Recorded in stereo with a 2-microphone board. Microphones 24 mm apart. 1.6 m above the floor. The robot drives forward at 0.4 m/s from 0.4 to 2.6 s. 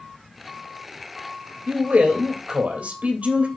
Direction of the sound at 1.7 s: 80° right.